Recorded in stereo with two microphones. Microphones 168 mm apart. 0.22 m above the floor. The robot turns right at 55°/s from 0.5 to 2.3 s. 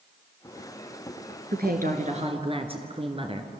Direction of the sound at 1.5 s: 80° right.